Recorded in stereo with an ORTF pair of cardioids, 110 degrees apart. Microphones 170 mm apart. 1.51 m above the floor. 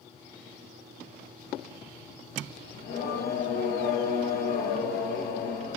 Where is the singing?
50° left, 1.2 m.